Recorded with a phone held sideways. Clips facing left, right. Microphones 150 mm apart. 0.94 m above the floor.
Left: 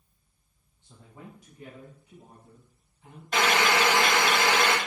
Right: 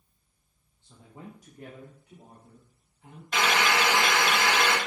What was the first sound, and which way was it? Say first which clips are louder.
A man speaking: right 1 dB; 20° left (ahead or behind).